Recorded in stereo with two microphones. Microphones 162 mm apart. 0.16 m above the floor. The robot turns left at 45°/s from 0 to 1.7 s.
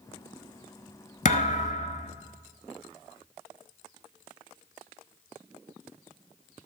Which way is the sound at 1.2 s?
60° left (ahead or behind).